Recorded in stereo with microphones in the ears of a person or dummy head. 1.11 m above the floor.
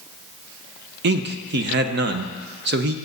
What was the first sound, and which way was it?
A man speaking, 60° right (ahead or behind).